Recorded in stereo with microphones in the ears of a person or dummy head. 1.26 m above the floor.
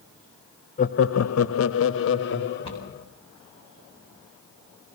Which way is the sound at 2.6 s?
25° left (ahead or behind).